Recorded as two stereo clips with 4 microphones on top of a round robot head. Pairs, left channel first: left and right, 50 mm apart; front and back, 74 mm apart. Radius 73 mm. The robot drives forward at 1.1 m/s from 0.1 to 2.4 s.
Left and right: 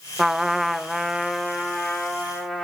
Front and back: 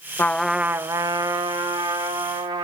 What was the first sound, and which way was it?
A trumpet, 10° right.